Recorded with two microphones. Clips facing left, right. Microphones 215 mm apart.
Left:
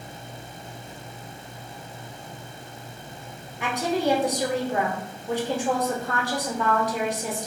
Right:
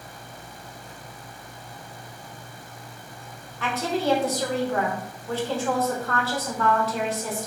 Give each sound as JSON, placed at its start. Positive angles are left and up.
{"t": 3.6, "sound": "a woman speaking", "side_deg": 15, "distance_m": 0.7}